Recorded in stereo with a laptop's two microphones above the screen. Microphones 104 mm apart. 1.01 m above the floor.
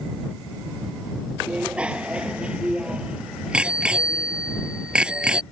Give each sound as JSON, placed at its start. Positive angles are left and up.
{"t": 1.5, "sound": "a bicycle bell", "side_deg": -10}